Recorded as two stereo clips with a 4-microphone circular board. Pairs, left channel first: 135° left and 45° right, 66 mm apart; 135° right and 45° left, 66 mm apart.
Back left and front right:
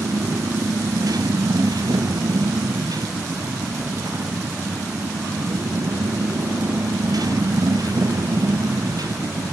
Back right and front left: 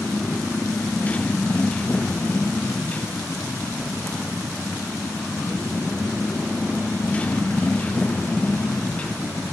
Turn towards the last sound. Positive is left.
turn(degrees=-65)